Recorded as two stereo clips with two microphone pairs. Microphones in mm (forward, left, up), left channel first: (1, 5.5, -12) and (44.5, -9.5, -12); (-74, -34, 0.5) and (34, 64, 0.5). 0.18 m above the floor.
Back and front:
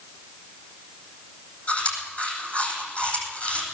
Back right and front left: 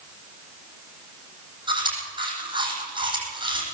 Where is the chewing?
100° left, 9 m.